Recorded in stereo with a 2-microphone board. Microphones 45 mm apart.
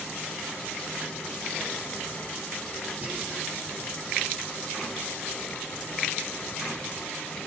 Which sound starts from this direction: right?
Whispering, at 3.0 s.